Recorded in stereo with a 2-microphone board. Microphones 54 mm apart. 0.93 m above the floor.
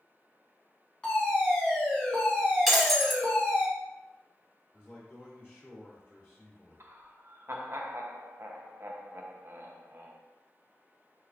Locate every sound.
1.0 s a fire alarm: 20° left (ahead or behind), 1.6 m
2.7 s breaking glass: centre (ahead or behind), 0.7 m
4.7 s a man speaking: 35° left (ahead or behind), 0.9 m
6.8 s laughter: 50° right (ahead or behind), 0.6 m